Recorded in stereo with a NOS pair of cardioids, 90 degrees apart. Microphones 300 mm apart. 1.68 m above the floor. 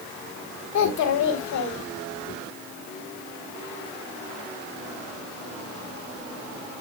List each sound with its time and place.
0.7 s a child speaking: 70° left, 3 m